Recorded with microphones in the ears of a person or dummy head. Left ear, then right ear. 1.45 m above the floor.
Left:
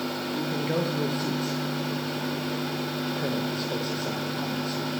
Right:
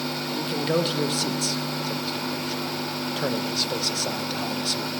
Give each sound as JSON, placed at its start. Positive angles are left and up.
{"t": 0.3, "sound": "a man speaking", "side_deg": -40, "distance_m": 1.0}